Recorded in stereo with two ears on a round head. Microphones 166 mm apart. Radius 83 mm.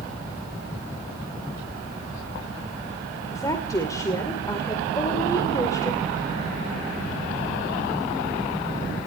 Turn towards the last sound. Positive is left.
turn(degrees=15)  # may be behind; listen again after turning